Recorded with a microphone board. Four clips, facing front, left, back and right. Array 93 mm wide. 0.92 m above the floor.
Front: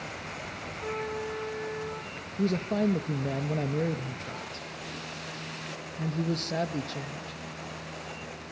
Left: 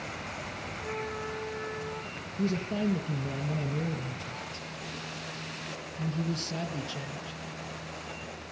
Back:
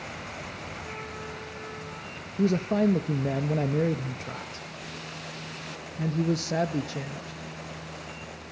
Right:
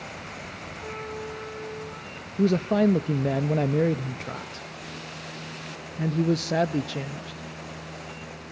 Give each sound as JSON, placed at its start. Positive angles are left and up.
{"t": 0.8, "sound": "a trumpet", "azimuth_deg": -25, "distance_m": 9.0}
{"t": 2.4, "sound": "a man speaking", "azimuth_deg": -100, "distance_m": 0.7}